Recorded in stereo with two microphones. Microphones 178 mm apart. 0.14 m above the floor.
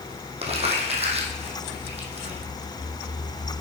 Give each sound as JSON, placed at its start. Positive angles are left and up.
{"t": 0.4, "sound": "crumpling", "side_deg": -35, "distance_m": 1.7}